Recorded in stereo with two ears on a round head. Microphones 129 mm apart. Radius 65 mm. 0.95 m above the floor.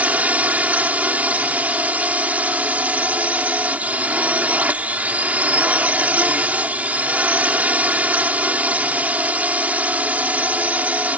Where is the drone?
10° right (ahead or behind).